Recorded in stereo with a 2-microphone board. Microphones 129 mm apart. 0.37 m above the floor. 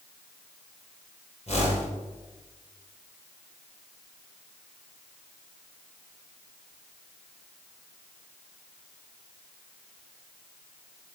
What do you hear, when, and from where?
1.5 s a whoosh: 55° left (ahead or behind), 6 m